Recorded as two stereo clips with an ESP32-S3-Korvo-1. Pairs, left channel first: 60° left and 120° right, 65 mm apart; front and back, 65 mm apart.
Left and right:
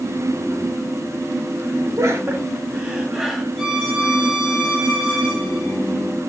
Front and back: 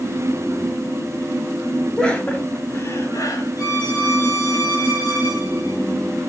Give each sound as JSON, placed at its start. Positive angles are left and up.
{"t": 2.0, "sound": "laughter", "azimuth_deg": -80, "distance_m": 1.4}
{"t": 3.6, "sound": "a violin", "azimuth_deg": -40, "distance_m": 4.5}